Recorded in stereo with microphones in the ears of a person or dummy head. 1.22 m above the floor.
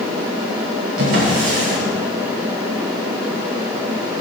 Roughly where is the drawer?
Right.